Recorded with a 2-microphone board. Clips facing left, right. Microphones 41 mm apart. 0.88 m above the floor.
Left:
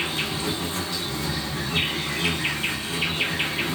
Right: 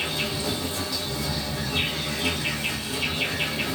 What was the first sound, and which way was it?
An insect, 50° left (ahead or behind).